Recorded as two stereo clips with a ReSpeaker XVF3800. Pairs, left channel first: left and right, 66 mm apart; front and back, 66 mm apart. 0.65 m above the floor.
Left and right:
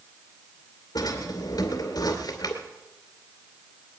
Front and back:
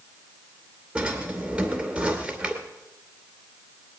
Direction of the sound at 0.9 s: 110° left.